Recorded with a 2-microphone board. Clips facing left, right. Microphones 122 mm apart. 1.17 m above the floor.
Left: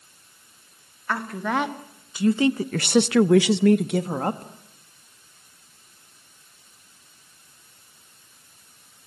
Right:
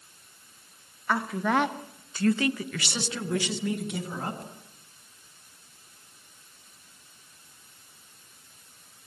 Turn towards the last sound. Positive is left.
turn(degrees=50)  # may be behind; listen again after turning